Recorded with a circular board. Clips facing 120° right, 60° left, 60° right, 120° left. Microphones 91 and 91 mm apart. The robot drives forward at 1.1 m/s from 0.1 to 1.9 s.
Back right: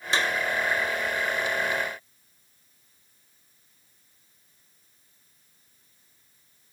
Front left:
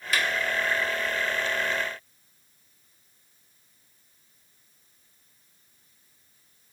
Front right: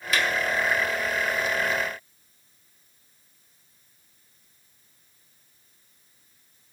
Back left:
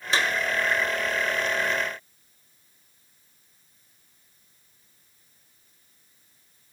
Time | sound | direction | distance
0.1 | a clap | straight behind | 2 m